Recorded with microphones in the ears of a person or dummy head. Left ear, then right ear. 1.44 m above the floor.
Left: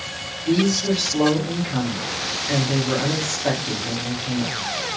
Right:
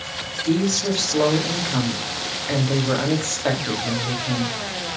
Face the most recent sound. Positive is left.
turn(degrees=-45)  # may be behind; listen again after turning